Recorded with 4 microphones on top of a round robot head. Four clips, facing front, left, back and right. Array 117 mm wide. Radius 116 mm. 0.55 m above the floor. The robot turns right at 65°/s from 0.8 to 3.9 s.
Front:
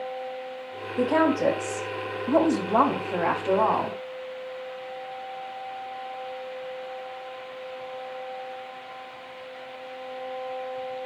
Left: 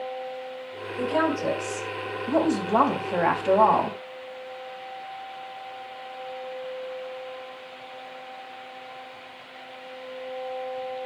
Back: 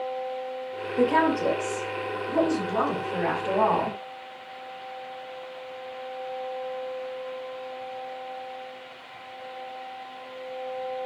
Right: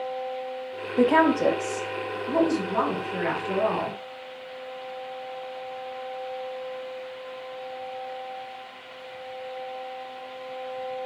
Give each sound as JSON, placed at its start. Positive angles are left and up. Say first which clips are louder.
{"t": 1.0, "sound": "a woman speaking", "louder": "right 5 dB, even", "azimuth_deg": -70, "distance_m": 4.5}